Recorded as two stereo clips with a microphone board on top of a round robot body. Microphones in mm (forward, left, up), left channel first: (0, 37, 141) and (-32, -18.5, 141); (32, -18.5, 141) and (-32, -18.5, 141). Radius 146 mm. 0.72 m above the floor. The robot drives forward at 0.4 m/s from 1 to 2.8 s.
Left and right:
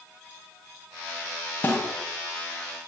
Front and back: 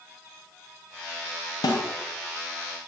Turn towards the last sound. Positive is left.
turn(degrees=0)